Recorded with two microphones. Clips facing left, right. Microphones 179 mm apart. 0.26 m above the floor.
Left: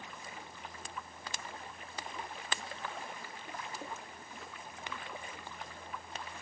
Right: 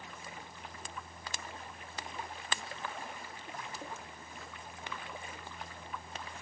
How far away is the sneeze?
No sneeze in this recording.